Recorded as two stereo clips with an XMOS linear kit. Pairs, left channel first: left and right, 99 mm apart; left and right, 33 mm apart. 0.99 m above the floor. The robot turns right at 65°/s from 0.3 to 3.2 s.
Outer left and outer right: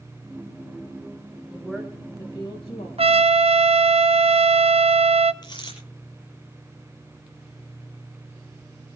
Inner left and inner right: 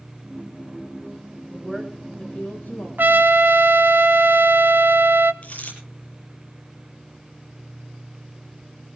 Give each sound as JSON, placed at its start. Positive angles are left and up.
{"t": 1.5, "sound": "a woman speaking", "azimuth_deg": -5, "distance_m": 6.5}
{"t": 3.0, "sound": "a trumpet", "side_deg": -75, "distance_m": 0.8}
{"t": 5.4, "sound": "a dropped coin", "side_deg": 45, "distance_m": 8.0}